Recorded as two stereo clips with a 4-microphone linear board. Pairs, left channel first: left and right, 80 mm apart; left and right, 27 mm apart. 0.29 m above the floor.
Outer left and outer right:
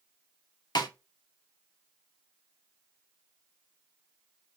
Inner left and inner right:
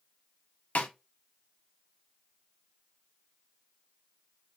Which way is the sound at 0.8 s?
65° left (ahead or behind).